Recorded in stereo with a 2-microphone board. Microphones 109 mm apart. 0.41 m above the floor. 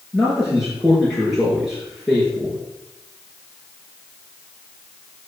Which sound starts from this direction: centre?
A man speaking, at 0.1 s.